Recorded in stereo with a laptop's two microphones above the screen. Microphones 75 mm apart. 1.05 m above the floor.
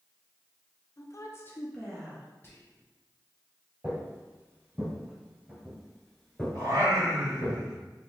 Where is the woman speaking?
50° left (ahead or behind), 0.6 m; by 2.3 s 10° right (ahead or behind), 0.8 m.